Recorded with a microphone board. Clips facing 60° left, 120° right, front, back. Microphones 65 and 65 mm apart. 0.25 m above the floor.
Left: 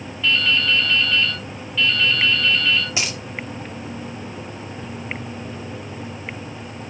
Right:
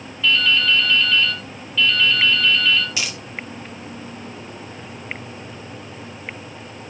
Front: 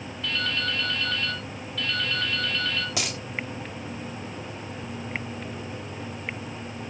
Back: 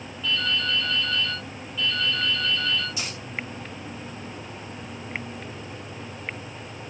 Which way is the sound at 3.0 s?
5° right.